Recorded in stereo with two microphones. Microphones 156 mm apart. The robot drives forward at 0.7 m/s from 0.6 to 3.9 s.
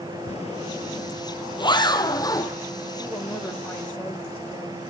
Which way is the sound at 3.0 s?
10° left (ahead or behind).